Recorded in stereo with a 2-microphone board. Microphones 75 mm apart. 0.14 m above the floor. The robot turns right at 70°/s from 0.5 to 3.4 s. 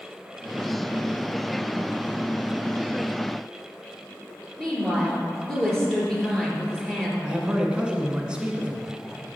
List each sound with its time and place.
4.6 s a woman speaking: 5° left (ahead or behind), 2.5 m
7.2 s a man speaking: 15° right (ahead or behind), 1.4 m